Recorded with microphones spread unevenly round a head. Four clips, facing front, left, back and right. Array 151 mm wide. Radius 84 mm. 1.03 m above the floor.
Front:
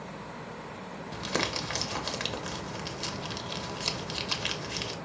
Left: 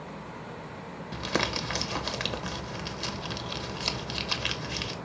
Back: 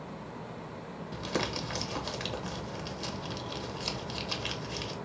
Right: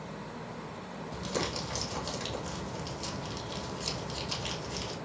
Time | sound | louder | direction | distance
1.1 | crumpling | left 4 dB, front 1 dB | 55° left | 1.4 m